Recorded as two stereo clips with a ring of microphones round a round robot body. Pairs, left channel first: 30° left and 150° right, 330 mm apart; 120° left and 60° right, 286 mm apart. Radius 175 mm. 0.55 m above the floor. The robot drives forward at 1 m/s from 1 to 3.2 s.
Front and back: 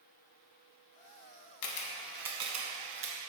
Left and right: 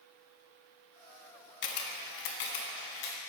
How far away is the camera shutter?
About 0.7 m.